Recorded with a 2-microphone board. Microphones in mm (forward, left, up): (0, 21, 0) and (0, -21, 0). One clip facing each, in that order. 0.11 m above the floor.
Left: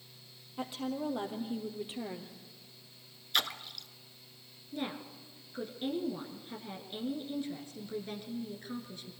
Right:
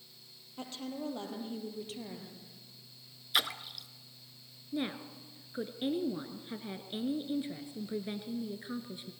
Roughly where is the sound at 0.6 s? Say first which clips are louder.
Left 4 dB; centre.